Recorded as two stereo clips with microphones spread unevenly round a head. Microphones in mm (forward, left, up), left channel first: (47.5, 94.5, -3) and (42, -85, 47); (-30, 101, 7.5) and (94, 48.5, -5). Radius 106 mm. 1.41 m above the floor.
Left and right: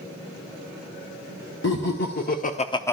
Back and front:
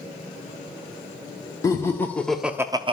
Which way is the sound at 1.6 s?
90° left.